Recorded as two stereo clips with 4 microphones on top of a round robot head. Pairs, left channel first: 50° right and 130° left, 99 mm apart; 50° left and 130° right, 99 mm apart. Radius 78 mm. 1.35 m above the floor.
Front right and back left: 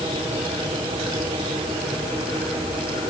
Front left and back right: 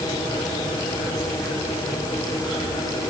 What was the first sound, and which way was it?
Only background noise.